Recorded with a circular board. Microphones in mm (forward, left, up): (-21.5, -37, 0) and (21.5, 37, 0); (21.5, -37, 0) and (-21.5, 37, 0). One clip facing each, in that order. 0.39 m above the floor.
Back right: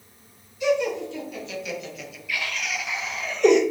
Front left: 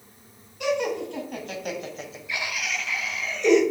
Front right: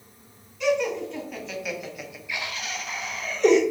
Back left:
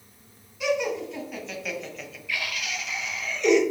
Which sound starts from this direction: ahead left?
Laughter, at 0.6 s.